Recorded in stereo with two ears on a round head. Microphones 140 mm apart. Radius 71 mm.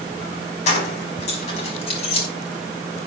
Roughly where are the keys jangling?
Left.